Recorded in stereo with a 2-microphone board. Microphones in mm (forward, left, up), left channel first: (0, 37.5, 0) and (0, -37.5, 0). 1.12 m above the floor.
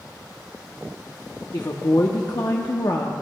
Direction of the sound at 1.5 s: 60° left (ahead or behind).